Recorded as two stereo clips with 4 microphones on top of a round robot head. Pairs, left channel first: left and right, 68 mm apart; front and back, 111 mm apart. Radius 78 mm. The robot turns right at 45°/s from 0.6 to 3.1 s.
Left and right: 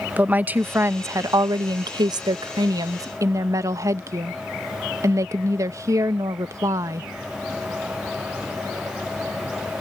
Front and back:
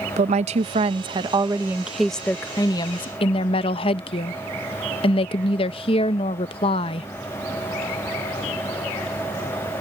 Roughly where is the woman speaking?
Behind right.